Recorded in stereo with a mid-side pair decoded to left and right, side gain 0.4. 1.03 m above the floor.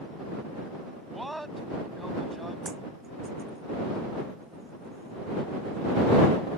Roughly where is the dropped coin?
Ahead right.